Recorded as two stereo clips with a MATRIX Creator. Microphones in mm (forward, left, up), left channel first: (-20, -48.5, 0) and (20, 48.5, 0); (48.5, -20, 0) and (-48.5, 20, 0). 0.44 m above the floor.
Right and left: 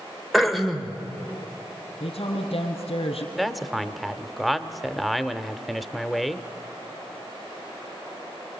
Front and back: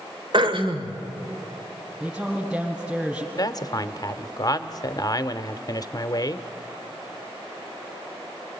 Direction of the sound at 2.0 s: 125° right.